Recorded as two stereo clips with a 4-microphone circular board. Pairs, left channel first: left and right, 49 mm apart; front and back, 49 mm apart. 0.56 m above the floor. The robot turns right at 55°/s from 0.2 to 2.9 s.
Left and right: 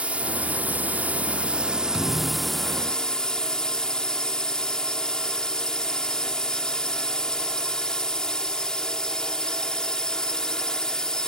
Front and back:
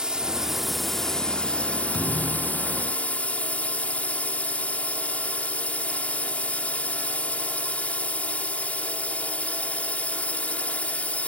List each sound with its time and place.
0.0 s a drone: 120° right; by 11.3 s 25° left
1.9 s a thud: 20° left; by 2.8 s 65° left